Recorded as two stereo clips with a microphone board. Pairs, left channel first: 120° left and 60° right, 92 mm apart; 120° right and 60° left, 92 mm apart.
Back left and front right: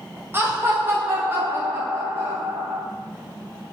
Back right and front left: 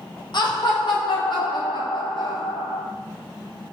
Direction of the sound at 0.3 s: 120° right.